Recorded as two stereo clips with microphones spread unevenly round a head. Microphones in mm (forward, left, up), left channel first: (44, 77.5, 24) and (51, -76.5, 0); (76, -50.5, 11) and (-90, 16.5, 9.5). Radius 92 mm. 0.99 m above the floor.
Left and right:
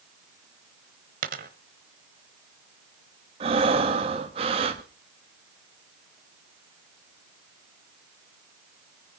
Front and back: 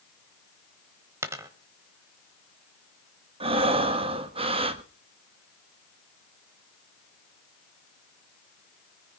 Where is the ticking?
No ticking in this recording.